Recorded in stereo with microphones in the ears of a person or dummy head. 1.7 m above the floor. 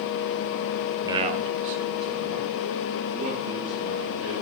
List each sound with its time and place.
1.0 s a man speaking: 15° right (ahead or behind), 0.9 m; by 4.3 s 65° right (ahead or behind), 4.5 m